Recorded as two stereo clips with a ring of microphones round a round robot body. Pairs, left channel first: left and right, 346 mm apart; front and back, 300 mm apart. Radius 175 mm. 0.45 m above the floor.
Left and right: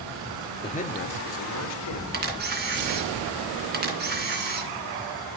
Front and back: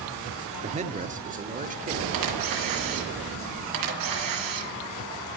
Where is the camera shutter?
150° right, 2.5 m.